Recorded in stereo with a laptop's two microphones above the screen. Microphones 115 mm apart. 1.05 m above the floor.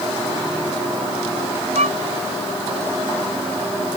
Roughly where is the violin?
Right.